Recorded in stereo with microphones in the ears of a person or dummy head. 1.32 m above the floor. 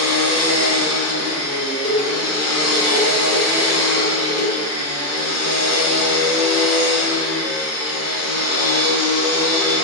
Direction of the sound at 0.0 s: 80° left.